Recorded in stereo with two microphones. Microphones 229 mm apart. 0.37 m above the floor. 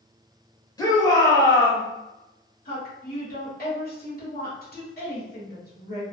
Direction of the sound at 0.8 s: 15° left (ahead or behind).